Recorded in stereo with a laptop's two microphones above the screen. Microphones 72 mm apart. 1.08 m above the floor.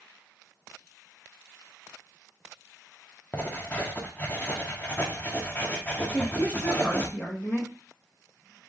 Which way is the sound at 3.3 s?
25° left (ahead or behind).